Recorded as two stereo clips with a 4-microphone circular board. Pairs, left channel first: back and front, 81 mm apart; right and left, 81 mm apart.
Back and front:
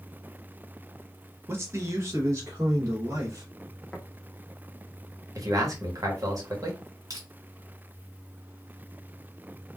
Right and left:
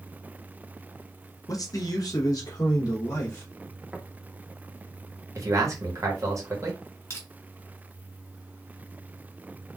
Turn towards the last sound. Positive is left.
turn(degrees=-35)